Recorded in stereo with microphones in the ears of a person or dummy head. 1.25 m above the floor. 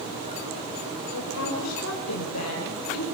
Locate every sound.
1.1 s a woman speaking: 75° left (ahead or behind), 5 m; by 3.0 s 85° left, 4.5 m